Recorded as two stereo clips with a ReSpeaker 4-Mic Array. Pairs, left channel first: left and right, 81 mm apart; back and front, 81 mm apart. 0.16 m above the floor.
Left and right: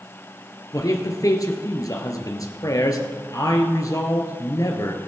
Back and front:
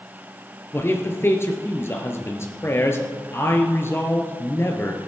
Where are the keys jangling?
I don't hear keys jangling.